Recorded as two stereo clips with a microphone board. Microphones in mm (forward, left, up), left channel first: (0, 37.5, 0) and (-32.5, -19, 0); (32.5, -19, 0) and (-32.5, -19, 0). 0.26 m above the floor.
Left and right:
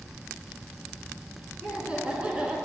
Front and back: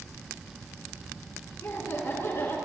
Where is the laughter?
50° right, 3 m.